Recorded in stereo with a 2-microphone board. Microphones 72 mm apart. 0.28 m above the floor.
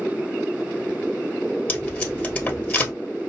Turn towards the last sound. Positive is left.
turn(degrees=20)  # may be behind; listen again after turning